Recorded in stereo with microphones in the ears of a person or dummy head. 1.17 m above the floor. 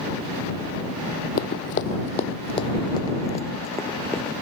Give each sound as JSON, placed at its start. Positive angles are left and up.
{"t": 1.4, "sound": "running footsteps", "side_deg": 50}